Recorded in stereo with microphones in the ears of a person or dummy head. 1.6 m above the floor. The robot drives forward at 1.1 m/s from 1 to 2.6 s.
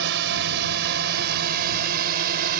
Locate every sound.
0.0 s a drone: 65° right (ahead or behind); by 2.6 s 55° right (ahead or behind)